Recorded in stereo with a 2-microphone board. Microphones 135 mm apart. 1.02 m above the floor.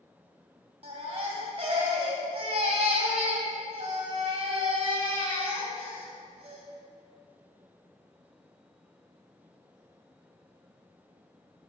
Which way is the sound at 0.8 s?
50° right (ahead or behind).